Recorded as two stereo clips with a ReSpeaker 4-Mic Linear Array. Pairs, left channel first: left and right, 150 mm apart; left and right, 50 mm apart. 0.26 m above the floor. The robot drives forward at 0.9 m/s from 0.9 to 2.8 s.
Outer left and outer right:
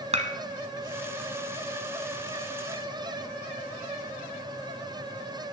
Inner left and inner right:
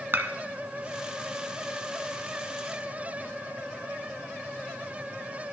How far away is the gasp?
No gasp in this recording.